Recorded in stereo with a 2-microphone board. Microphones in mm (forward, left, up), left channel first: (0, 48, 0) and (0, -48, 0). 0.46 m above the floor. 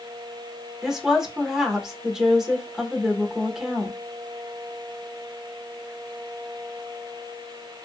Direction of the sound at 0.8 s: 5° right (ahead or behind).